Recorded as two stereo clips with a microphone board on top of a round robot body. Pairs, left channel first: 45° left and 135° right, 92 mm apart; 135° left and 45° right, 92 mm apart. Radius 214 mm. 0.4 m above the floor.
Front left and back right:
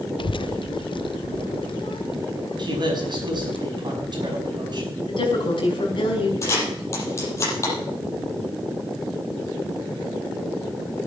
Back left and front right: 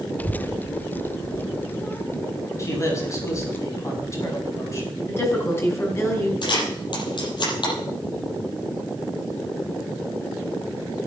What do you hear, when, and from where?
0.2 s a child speaking: 65° left, 0.6 m; by 3.6 s 70° left, 2.5 m
2.6 s a man speaking: 170° right, 5.5 m
5.1 s a woman speaking: 75° left, 4.5 m
6.4 s a camera shutter: 100° left, 6 m